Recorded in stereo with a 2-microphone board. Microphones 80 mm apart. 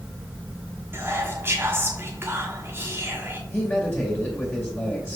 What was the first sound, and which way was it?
Whispering, 30° right (ahead or behind).